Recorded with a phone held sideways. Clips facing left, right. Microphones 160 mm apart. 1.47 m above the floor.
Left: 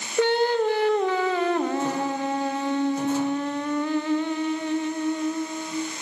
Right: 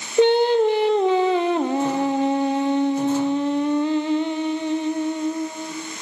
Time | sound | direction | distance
0.2 | singing | 20° right (ahead or behind) | 0.7 m